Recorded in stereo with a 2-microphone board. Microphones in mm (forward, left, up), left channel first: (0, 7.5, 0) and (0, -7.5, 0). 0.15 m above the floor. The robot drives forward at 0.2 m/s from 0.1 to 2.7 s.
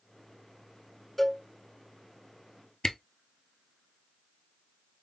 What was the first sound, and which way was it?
A cowbell, 15° left (ahead or behind).